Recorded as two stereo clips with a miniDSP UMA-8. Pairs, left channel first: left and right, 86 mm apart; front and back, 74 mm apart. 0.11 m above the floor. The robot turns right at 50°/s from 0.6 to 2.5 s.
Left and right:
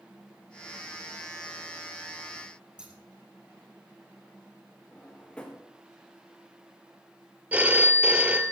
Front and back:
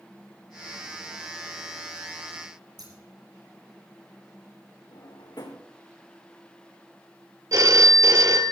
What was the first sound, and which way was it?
Scissors, 170° right.